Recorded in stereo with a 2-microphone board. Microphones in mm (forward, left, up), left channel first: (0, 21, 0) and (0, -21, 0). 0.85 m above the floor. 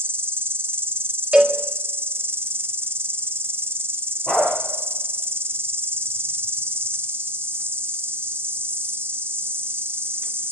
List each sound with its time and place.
0.0 s an insect: 70° right (ahead or behind), 3.5 m
1.3 s a cowbell: 25° right (ahead or behind), 2.0 m
4.3 s a dog barking: 15° left (ahead or behind), 7.5 m